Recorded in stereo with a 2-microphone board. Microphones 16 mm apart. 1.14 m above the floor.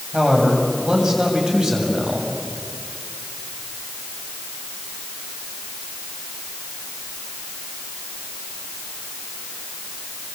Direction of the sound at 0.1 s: 50° right (ahead or behind).